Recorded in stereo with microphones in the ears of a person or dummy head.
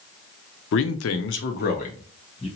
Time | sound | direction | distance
0.7 | a man speaking | 65° left (ahead or behind) | 0.5 m